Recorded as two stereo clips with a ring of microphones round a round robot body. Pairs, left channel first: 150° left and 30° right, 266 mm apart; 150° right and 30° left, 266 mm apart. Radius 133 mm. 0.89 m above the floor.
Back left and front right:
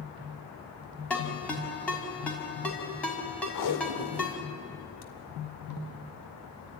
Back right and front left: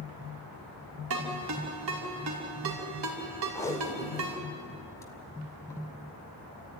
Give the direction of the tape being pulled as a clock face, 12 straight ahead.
8 o'clock.